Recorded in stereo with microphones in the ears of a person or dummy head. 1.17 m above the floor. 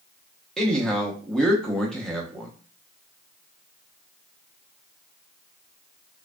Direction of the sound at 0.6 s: 5° left (ahead or behind).